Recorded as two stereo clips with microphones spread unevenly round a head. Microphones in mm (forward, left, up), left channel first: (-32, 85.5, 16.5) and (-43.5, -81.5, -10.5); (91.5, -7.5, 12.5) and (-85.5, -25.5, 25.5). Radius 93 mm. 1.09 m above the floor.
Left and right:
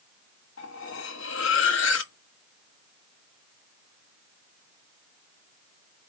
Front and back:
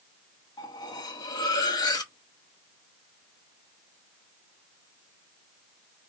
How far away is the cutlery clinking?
About 1.1 m.